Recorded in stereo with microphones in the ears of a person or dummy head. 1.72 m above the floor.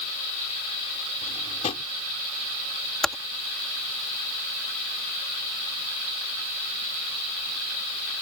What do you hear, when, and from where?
1.2 s a drawer: 35° left (ahead or behind)
3.0 s typing on a keyboard: 5° left (ahead or behind)